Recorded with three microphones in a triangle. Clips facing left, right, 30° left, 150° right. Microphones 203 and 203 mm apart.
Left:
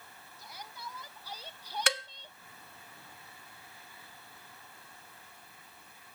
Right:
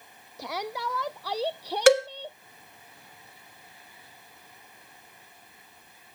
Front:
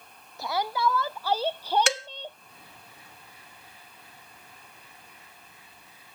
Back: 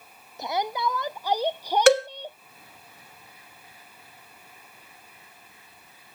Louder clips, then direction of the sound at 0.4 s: Right 16 dB, even; 80° right.